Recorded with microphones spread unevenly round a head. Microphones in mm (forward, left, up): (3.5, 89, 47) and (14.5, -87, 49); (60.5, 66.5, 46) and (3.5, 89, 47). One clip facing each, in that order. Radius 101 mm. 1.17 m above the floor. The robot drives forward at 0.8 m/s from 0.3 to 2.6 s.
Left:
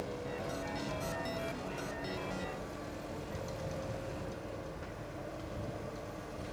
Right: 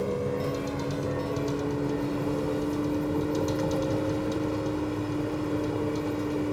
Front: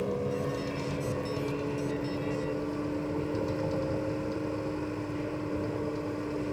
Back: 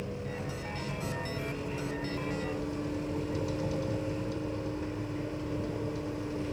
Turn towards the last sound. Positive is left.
turn(degrees=-95)